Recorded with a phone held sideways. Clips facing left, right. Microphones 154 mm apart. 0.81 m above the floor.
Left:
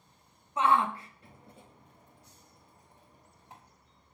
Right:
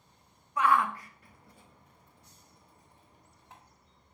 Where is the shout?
25° left (ahead or behind), 0.5 m; by 3.6 s 10° left (ahead or behind), 1.7 m.